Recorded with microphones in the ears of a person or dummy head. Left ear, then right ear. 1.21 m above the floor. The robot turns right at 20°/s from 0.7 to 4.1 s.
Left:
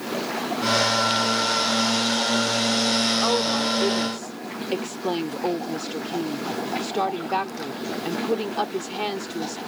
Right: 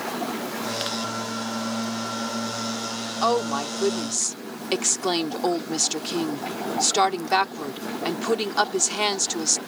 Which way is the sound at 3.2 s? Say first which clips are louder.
Left 1 dB; 65° right (ahead or behind).